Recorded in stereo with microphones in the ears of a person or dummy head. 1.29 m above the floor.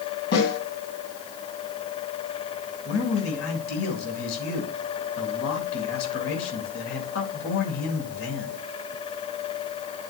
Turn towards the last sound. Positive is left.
turn(degrees=75)  # may be behind; listen again after turning